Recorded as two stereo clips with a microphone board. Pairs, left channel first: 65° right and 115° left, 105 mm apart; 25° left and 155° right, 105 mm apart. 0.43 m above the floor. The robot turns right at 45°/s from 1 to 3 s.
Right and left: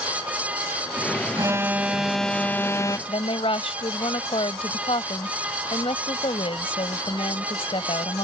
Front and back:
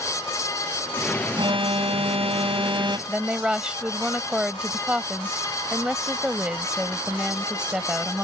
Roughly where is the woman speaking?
Right.